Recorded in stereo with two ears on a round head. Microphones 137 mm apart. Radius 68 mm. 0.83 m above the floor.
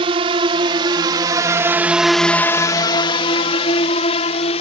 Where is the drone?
35° right (ahead or behind); by 4.6 s 45° left (ahead or behind).